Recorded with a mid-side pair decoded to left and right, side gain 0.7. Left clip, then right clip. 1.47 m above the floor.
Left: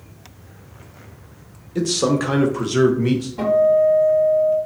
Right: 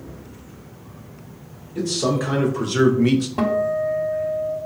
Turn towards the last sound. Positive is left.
turn(degrees=-50)